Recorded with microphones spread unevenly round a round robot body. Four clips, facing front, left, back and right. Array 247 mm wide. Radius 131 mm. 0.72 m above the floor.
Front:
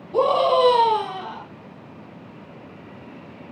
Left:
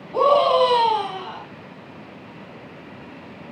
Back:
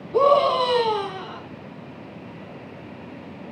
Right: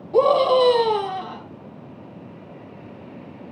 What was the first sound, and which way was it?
A scream, 85° right.